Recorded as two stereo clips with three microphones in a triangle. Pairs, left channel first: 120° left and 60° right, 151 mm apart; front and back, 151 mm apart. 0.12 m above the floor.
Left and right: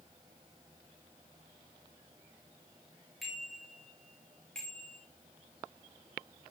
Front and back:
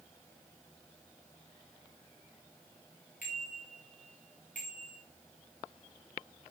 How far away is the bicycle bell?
About 8.5 m.